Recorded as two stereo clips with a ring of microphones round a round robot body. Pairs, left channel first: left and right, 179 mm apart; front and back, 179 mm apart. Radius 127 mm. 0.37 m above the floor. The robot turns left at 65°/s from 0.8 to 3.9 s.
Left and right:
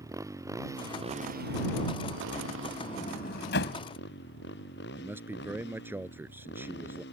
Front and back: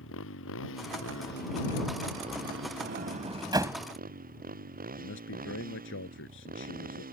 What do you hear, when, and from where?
0.0 s a motorcycle: 15° right; by 7.1 s 145° left
2.8 s a sliding door: 165° left; by 3.8 s 100° left
5.0 s a man speaking: 10° right